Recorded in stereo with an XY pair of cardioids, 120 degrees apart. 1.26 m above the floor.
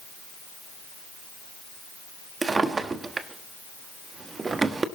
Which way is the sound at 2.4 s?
25° right.